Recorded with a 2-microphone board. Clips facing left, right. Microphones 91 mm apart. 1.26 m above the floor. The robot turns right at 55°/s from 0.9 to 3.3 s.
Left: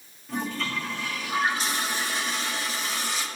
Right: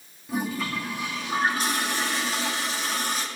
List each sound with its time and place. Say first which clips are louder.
0.3 s a toilet flushing: right 2 dB; 170° right, 2.5 m; by 3.3 s 40° right, 2.5 m